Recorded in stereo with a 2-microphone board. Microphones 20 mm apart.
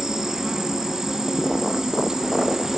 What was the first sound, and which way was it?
An insect, 40° right (ahead or behind).